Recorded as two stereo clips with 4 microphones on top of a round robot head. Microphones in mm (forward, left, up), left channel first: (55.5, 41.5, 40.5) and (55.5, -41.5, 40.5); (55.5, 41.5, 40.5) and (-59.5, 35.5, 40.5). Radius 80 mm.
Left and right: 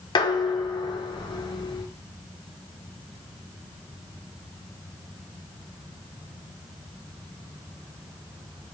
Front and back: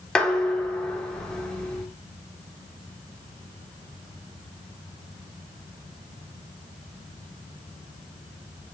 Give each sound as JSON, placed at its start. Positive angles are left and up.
{"t": 0.1, "sound": "dishes clattering", "azimuth_deg": 85, "distance_m": 0.8}